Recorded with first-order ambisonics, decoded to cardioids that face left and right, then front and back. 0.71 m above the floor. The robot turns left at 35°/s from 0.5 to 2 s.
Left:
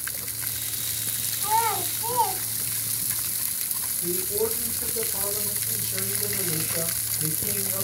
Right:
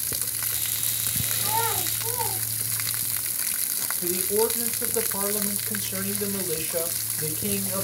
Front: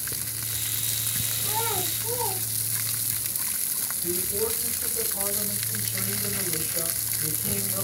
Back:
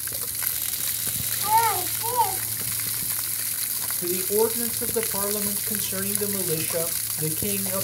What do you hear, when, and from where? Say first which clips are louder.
1.4 s a child speaking: left 4 dB, back 10 dB; 170° left, 4 m; by 3.1 s 150° left, 4 m
4.0 s a man speaking: right 3 dB, back 7 dB; 150° right, 3 m